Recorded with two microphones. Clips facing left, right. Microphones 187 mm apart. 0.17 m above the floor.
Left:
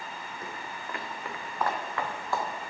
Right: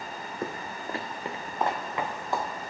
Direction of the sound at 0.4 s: 60° right (ahead or behind).